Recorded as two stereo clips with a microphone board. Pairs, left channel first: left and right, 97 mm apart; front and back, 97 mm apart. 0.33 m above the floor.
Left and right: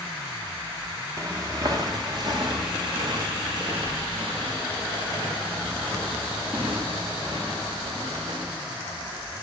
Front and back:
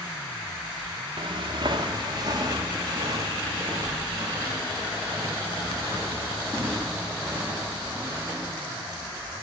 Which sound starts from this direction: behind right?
Footsteps, at 1.2 s.